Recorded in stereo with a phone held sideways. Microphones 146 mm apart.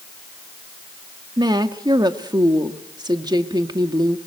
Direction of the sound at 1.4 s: 30° right (ahead or behind).